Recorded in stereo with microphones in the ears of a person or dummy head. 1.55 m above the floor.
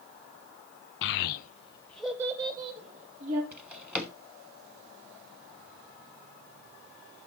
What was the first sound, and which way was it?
A child speaking, 70° left (ahead or behind).